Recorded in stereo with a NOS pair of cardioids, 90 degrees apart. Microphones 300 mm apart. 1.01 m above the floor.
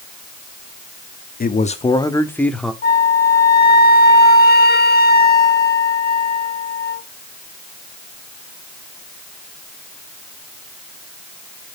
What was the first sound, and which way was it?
A man speaking, 30° left.